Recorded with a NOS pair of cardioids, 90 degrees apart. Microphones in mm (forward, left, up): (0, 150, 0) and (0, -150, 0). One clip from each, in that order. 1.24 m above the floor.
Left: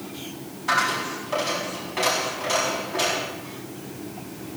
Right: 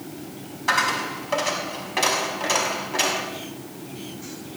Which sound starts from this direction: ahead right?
A dropped coin, at 0.7 s.